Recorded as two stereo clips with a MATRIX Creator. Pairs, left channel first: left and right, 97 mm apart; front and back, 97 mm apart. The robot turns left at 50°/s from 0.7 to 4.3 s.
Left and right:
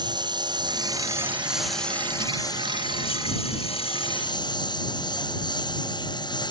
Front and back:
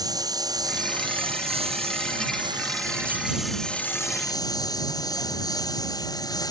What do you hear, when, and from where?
0.0 s a lawn mower: 130° right; by 6.5 s 50° left